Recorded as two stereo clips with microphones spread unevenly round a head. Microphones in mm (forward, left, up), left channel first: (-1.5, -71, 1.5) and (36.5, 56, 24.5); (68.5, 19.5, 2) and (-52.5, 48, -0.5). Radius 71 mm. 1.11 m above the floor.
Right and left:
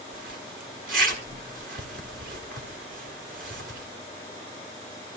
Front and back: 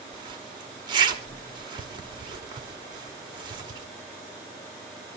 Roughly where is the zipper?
Left.